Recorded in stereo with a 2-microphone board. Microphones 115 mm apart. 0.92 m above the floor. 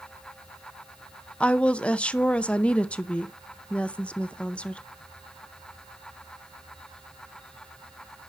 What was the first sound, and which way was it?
A woman speaking, 10° left (ahead or behind).